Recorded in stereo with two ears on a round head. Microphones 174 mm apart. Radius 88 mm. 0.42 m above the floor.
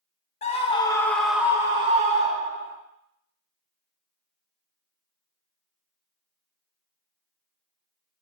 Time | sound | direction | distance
0.4 | a scream | 35° left (ahead or behind) | 0.9 m